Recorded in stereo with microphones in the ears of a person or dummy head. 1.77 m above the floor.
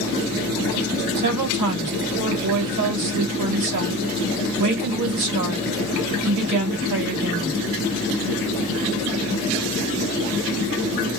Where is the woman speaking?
55° right (ahead or behind), 1.4 m.